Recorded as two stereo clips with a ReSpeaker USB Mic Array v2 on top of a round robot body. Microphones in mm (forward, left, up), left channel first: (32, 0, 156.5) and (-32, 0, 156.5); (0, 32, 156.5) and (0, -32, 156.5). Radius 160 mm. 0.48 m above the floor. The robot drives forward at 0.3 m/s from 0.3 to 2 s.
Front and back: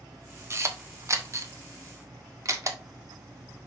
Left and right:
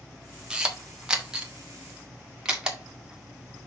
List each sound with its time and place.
0.5 s a camera shutter: 165° right, 1.6 m; by 2.8 s 170° right, 1.9 m